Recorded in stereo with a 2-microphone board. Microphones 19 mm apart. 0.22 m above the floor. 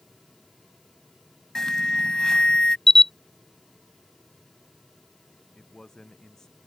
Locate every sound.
1.6 s an alarm: 30° left (ahead or behind)
2.9 s a camera shutter: 15° left (ahead or behind)
5.5 s a man speaking: 25° left (ahead or behind)